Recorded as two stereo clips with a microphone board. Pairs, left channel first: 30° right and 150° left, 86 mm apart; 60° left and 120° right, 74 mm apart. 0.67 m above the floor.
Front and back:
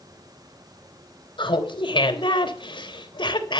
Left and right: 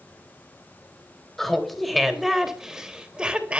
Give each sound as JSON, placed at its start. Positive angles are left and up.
{"t": 1.4, "sound": "laughter", "azimuth_deg": -25, "distance_m": 3.5}